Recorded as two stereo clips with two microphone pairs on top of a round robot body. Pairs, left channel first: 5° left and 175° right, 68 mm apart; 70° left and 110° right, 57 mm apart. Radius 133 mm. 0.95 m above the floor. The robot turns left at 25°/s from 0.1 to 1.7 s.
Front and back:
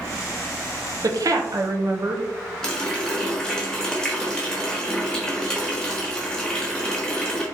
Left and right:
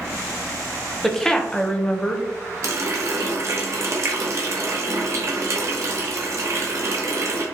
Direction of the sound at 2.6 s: 75° right.